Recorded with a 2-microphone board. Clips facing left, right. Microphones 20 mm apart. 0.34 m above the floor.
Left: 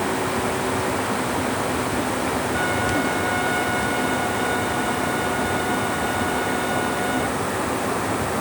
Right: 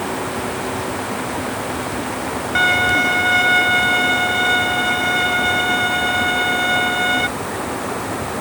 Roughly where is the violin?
Right.